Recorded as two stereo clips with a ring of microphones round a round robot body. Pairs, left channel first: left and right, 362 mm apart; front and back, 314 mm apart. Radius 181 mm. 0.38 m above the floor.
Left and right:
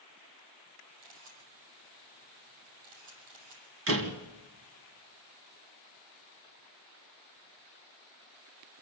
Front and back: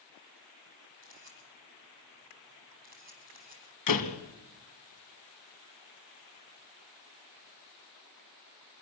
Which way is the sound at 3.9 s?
35° right.